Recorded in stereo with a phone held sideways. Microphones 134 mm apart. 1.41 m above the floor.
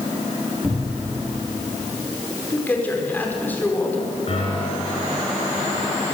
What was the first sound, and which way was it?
A cupboard door, 10° right (ahead or behind).